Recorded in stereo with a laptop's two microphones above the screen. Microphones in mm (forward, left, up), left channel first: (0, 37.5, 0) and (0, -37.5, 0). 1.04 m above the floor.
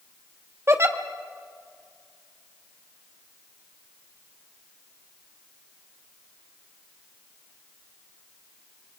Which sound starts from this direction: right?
A giggle, at 0.7 s.